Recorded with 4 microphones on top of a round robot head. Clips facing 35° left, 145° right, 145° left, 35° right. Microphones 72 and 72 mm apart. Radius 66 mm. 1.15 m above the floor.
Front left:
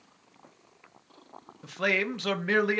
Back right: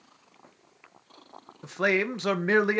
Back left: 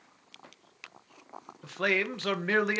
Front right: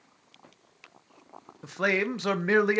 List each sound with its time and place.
1.6 s a man speaking: 95° right, 0.6 m